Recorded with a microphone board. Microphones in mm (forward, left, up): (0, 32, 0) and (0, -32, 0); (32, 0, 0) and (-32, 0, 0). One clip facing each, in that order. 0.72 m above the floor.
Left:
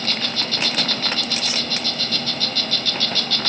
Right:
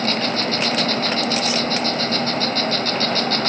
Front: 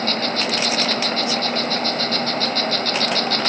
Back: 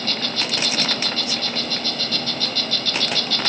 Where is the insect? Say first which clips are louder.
Right 6 dB, front 5 dB; 40° right, 0.9 m.